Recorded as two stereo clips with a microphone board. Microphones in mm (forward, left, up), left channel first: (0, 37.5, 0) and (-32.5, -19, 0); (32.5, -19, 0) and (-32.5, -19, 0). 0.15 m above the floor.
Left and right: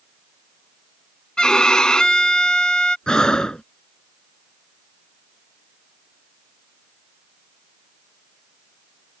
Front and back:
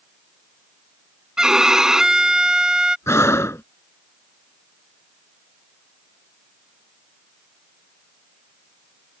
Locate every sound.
1.4 s a violin: 115° left
3.1 s breathing: 15° right